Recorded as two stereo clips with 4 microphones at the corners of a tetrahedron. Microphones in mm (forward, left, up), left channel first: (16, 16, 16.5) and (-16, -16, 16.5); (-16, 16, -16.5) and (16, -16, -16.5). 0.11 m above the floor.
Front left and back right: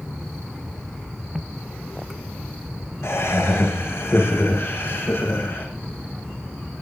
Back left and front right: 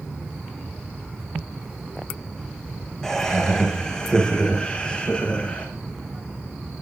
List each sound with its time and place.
3.0 s laughter: 55° left, 5.5 m; by 5.7 s 75° left, 5.5 m